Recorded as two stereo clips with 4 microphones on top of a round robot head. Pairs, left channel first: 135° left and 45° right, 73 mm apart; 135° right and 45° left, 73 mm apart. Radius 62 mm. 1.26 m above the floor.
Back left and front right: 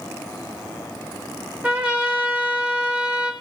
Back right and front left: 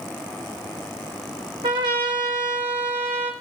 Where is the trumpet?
30° left, 3 m.